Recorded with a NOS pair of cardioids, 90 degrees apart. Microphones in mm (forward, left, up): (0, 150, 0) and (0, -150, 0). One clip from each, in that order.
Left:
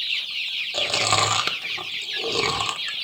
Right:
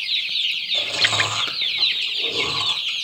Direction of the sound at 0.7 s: 50° left.